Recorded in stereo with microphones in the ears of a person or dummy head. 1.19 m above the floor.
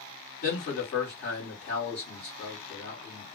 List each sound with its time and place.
0.4 s a man speaking: 35° left (ahead or behind), 1.5 m